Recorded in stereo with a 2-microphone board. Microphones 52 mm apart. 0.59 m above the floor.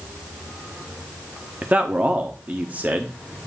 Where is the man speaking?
30° right (ahead or behind), 0.7 m.